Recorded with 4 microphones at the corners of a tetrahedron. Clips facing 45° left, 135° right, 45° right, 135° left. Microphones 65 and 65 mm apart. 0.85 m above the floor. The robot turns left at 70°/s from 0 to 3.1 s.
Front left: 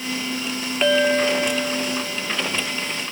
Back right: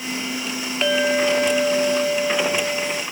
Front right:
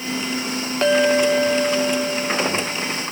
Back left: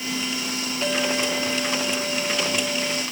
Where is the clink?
40° right, 1.5 m; by 3.0 s 165° left, 1.5 m.